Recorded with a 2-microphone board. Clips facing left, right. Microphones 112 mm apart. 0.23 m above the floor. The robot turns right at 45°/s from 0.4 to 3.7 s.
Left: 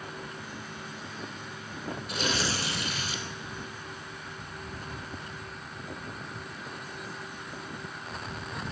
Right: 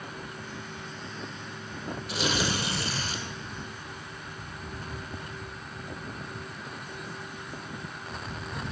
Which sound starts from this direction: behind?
Tearing paper, at 2.1 s.